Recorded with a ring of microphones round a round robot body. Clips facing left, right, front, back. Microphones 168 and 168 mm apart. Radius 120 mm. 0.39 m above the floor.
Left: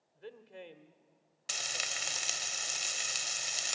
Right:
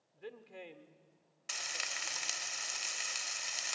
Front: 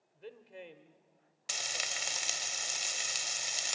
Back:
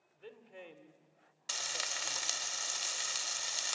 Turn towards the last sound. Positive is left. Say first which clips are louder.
# left 4 dB, front 1 dB
turn(degrees=65)